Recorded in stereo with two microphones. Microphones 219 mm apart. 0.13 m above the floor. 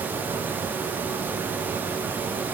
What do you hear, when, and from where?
Only background noise.